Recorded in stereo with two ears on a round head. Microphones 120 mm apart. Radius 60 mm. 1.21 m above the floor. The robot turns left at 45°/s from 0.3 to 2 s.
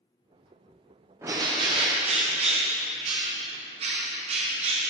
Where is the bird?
25° right, 1.0 m; by 4.9 s 60° right, 1.0 m.